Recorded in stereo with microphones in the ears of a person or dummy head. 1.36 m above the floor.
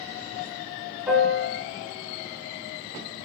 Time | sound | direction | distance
1.1 | a piano | 10° right (ahead or behind) | 1.0 m